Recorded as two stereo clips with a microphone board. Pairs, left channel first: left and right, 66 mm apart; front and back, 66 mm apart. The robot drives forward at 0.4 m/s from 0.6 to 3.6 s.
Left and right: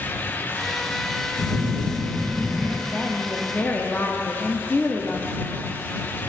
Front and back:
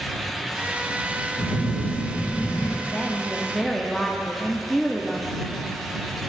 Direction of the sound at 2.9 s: 40° left.